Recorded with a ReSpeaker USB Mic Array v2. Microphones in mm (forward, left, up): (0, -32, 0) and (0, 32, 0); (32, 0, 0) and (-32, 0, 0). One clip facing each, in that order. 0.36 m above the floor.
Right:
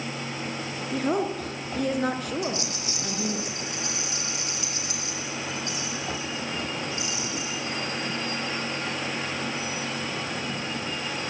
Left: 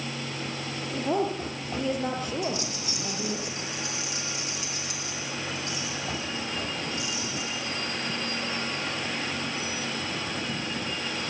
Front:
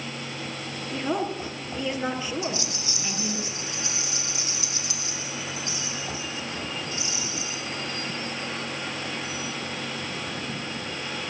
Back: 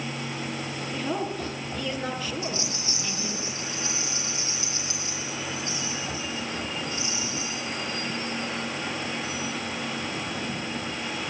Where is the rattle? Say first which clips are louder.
Right 1 dB, front 1 dB; 120° right, 7.5 m.